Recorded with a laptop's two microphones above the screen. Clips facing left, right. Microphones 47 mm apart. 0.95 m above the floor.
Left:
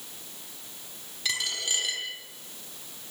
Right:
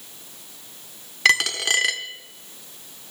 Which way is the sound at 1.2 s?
70° right (ahead or behind).